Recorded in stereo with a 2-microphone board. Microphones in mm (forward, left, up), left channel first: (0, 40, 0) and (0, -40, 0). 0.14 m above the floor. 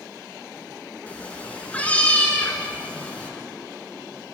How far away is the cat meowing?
About 1.0 m.